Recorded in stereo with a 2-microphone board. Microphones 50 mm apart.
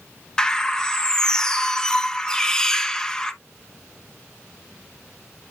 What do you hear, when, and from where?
0.4 s a bird: 15° left (ahead or behind), 0.6 m